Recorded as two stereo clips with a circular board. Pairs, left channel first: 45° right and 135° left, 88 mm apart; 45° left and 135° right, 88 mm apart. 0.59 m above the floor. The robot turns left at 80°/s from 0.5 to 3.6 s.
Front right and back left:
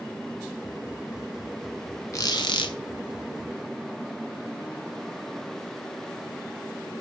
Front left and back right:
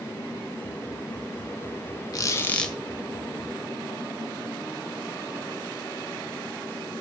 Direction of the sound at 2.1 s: 5° left.